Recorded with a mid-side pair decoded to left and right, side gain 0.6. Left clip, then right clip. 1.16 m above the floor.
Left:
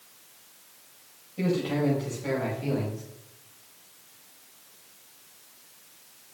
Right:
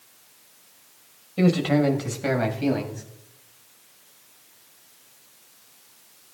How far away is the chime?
I don't hear a chime.